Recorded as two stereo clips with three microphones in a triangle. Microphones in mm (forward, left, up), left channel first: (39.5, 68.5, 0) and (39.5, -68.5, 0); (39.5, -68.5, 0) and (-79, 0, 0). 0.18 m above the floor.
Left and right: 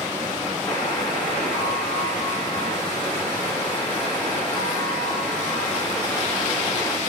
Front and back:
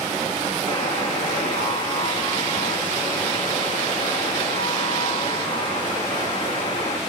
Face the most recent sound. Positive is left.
turn(degrees=15)